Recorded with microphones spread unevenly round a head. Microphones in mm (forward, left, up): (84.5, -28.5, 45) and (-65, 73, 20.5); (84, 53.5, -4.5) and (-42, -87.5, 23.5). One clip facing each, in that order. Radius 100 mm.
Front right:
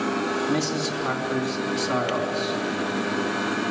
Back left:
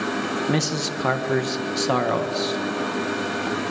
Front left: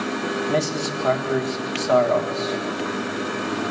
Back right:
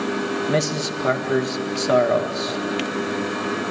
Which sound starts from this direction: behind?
A man speaking, at 0.5 s.